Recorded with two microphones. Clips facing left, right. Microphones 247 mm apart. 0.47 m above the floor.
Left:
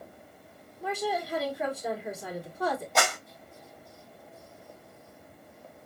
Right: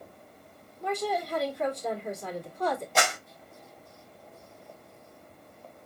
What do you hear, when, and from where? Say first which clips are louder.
0.8 s a woman speaking: right 1 dB; 5° left (ahead or behind), 1.1 m
3.0 s a clap: even; 5° right (ahead or behind), 2.5 m